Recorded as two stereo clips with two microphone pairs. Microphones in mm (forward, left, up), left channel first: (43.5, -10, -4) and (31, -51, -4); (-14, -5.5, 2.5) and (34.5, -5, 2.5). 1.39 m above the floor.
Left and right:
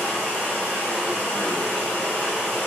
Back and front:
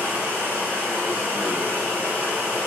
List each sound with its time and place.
0.0 s running water: 15° left, 1.7 m